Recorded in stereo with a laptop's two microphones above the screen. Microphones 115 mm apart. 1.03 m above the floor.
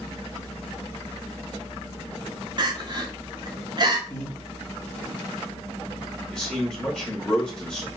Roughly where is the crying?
Right.